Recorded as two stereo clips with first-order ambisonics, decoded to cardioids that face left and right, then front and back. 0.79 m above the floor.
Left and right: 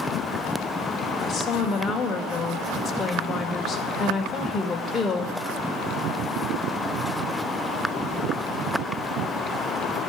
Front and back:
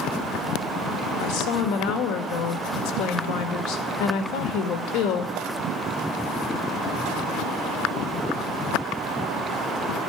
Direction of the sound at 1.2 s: 15° left.